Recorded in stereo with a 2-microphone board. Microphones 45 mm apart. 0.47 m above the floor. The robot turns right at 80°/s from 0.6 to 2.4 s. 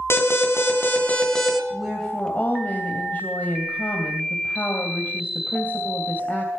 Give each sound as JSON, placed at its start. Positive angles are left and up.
{"t": 0.1, "sound": "an alarm", "azimuth_deg": 105, "distance_m": 3.0}
{"t": 1.7, "sound": "a woman speaking", "azimuth_deg": -10, "distance_m": 3.0}